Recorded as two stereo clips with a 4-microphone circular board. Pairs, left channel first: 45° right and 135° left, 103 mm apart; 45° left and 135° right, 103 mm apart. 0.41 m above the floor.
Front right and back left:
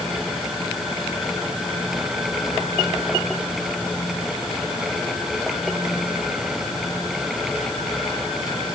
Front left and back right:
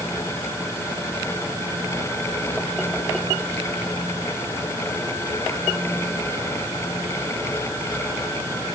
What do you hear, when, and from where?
Only background noise.